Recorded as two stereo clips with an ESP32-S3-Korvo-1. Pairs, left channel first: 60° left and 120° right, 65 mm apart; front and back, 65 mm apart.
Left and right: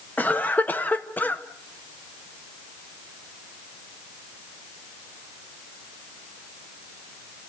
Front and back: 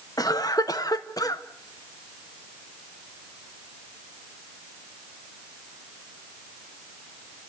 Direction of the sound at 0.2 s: Straight ahead.